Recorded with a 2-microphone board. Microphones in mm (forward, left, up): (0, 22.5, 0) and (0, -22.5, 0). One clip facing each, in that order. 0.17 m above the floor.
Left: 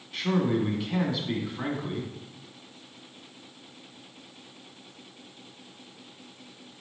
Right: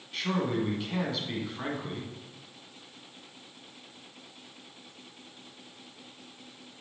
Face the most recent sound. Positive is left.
turn(degrees=5)  # may be behind; listen again after turning